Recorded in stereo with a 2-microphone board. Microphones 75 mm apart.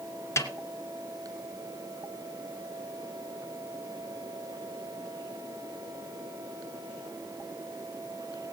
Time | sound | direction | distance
0.4 | a snare drum | 40° left (ahead or behind) | 2.0 m